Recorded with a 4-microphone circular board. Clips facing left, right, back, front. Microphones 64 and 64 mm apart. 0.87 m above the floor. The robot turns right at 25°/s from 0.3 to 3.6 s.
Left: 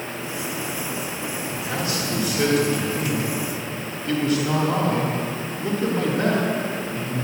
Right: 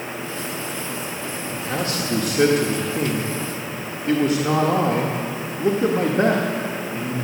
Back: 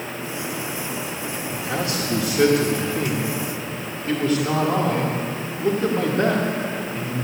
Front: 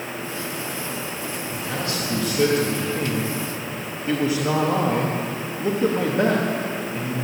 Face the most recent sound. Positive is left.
turn(degrees=-70)